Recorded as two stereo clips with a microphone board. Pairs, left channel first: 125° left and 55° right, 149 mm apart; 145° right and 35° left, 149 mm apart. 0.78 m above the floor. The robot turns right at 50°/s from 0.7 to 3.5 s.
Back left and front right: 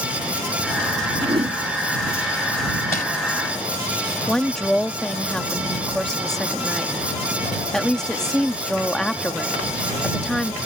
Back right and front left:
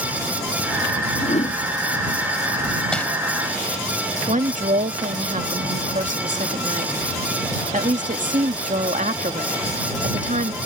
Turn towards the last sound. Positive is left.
turn(degrees=40)